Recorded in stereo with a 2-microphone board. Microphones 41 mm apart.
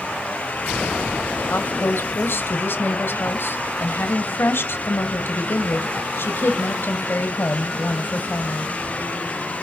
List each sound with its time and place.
1.5 s a woman speaking: 60° left (ahead or behind), 1.8 m